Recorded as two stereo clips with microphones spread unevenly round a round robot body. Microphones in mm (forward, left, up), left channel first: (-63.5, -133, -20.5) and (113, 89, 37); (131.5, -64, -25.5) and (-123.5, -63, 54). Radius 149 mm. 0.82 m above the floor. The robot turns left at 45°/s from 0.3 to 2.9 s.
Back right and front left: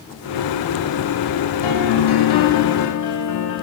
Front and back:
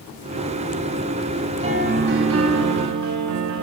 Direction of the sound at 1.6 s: 115° right.